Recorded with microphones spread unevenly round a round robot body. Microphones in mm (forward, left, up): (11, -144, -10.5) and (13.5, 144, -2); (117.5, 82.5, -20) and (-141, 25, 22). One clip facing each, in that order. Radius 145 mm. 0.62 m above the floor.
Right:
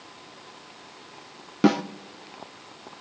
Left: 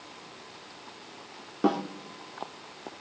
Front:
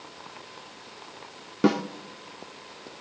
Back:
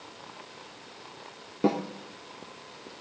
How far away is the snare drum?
About 0.8 m.